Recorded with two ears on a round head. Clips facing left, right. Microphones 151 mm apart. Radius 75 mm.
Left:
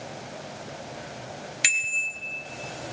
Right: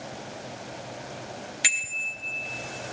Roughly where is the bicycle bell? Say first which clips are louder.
Left 1 dB; left.